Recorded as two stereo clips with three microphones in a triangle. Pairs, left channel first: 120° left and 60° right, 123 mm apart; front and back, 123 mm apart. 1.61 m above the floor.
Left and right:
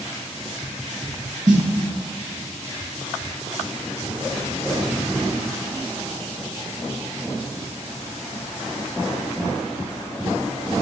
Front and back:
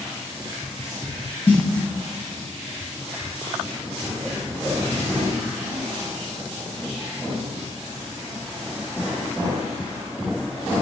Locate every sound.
1.5 s a snare drum: 45° right, 2 m